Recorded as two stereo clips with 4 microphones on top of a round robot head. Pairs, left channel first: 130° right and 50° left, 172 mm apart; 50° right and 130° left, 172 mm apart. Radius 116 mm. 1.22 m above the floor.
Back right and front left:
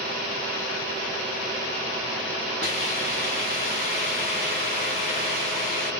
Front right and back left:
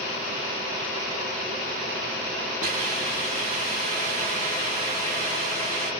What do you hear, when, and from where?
2.6 s a hiss: straight behind, 1.8 m